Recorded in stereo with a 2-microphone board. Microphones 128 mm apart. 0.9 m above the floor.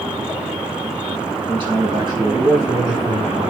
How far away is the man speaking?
About 7.5 m.